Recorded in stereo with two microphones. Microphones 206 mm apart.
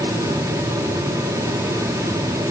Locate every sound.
Only background noise.